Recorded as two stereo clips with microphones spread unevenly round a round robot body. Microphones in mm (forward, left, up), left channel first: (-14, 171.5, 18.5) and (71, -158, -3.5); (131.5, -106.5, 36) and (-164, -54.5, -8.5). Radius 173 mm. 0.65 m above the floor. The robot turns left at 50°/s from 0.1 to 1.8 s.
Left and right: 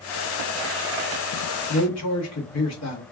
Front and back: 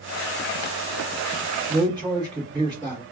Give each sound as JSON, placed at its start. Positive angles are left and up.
{"t": 1.7, "sound": "a man speaking", "azimuth_deg": 115, "distance_m": 1.3}